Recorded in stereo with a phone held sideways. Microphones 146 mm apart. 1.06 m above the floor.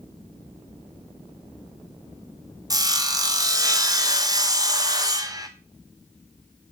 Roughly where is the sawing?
Right.